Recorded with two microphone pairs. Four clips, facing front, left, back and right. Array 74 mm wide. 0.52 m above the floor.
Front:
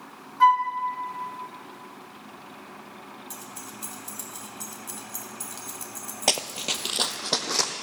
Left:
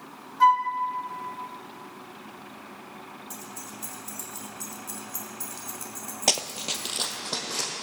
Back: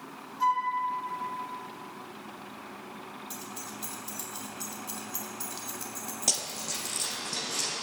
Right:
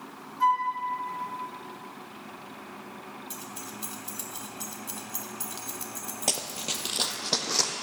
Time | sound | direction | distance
0.4 | a flute | 40° left | 1.4 m
3.3 | keys jangling | 85° right | 2.0 m
6.3 | running footsteps | 35° left | 0.7 m